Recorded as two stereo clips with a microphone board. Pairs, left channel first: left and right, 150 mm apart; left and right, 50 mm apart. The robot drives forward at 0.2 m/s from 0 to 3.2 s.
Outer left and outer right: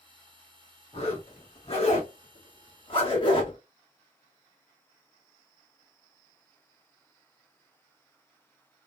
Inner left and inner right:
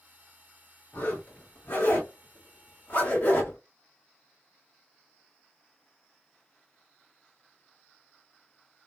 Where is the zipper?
45° left (ahead or behind), 1.3 m; by 3.6 s 35° left (ahead or behind), 1.5 m.